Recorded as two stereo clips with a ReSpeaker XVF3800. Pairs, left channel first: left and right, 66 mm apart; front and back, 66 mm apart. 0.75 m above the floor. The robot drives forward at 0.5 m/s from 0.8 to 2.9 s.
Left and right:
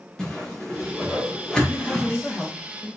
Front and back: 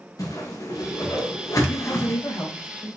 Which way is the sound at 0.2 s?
10° left.